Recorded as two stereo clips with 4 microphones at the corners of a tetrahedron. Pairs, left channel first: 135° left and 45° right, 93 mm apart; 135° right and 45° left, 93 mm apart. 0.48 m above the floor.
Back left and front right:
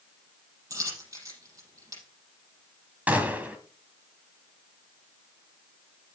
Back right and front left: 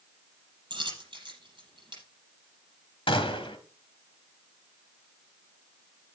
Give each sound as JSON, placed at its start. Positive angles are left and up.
{"t": 0.7, "sound": "a dropped coin", "azimuth_deg": 5, "distance_m": 6.5}
{"t": 3.1, "sound": "a gunshot", "azimuth_deg": -115, "distance_m": 1.7}